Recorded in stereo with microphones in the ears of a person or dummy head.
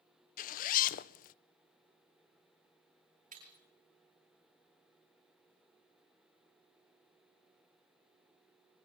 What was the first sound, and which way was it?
A zipper, 50° left (ahead or behind).